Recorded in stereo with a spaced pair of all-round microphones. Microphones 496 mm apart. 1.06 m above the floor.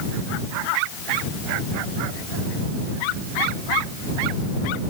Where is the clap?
No clap in this recording.